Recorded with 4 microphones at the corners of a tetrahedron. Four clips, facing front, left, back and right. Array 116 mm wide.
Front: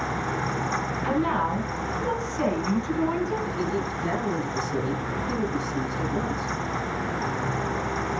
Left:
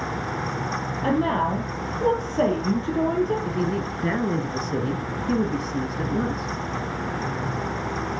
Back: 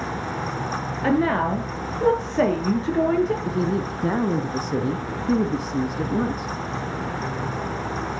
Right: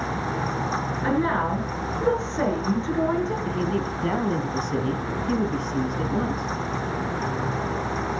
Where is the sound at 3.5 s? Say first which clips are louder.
Even, back 3 dB; 170° right, 1.6 m.